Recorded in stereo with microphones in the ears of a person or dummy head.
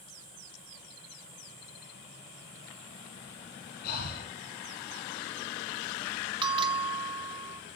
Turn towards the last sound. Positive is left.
turn(degrees=-30)  # may be behind; listen again after turning